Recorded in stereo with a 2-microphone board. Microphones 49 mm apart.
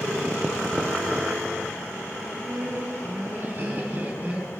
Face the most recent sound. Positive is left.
turn(degrees=-30)  # may be behind; listen again after turning